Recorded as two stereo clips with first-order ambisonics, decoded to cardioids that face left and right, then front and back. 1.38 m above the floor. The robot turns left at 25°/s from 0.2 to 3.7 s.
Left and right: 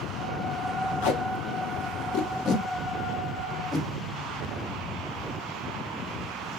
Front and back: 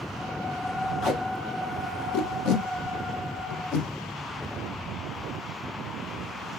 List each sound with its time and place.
1.0 s tape being pulled: 75° left, 0.8 m; by 3.9 s 5° left, 0.8 m